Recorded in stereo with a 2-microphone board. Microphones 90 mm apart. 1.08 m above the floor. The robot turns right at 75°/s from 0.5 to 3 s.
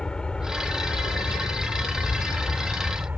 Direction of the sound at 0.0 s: 10° left.